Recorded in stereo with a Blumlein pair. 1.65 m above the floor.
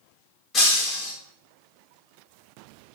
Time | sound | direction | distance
0.5 | breaking glass | 25° left | 3 m